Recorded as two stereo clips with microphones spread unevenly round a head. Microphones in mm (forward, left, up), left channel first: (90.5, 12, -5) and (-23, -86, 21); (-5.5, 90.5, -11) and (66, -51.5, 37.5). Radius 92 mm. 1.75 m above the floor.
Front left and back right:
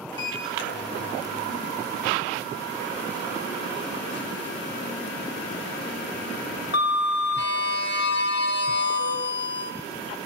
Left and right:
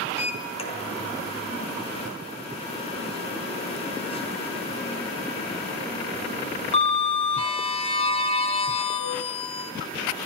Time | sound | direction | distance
0.1 | a sliding door | 60° left | 4.5 m